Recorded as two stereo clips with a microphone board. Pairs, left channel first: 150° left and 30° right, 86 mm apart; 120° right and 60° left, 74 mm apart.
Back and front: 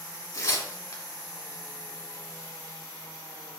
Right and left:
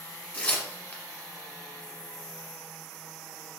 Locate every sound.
0.3 s tearing paper: 175° left, 1.1 m